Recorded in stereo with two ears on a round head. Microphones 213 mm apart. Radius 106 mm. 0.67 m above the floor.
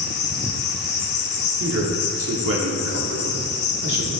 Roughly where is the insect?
Left.